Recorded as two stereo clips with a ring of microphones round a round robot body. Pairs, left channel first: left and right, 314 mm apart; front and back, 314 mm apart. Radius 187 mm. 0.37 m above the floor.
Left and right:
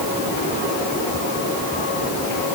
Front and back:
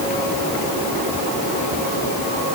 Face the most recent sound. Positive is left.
No sound to turn to.